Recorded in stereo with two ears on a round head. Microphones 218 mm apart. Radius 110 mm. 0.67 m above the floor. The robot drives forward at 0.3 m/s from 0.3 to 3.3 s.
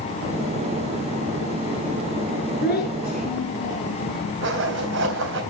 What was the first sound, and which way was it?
A child speaking, 40° left (ahead or behind).